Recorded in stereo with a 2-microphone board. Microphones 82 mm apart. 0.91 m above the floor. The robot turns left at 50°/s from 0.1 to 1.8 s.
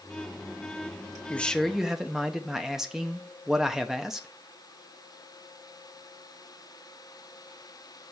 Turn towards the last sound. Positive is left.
turn(degrees=-5)  # may be behind; listen again after turning